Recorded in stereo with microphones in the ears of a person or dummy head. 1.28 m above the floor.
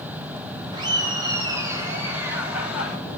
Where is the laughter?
25° right (ahead or behind), 5 m; by 3.0 s centre (ahead or behind), 4 m.